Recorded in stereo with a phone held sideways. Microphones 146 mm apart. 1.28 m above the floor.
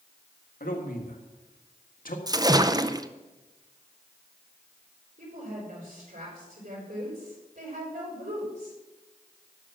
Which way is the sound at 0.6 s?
75° left (ahead or behind).